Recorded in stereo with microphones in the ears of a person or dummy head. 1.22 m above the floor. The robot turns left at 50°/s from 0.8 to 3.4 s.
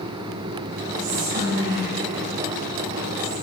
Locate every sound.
1.0 s whispering: 55° right (ahead or behind), 5 m; by 3.3 s 10° right (ahead or behind), 5 m